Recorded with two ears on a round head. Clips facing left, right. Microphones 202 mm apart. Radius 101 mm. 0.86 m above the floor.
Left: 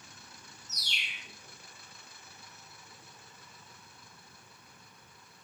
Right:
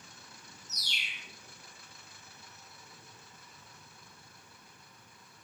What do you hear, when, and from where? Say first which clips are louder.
0.7 s a bird: left 2 dB; 55° left (ahead or behind), 3 m